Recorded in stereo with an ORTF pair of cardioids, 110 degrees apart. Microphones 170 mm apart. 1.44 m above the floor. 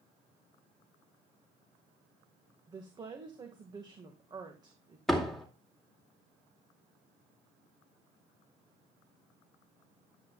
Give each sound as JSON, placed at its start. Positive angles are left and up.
{"t": 2.7, "sound": "a woman speaking", "azimuth_deg": -25, "distance_m": 1.8}
{"t": 5.1, "sound": "a door slam", "azimuth_deg": 0, "distance_m": 2.5}